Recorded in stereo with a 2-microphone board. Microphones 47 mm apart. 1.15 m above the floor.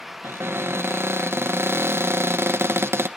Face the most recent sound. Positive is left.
turn(degrees=-60)  # may be behind; listen again after turning